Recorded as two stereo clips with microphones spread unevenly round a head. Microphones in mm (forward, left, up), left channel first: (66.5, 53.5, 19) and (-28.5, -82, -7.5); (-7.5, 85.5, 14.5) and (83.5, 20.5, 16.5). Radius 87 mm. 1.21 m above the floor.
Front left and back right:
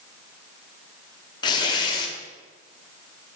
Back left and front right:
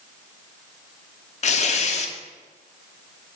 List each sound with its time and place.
1.4 s tearing paper: 125° left, 0.7 m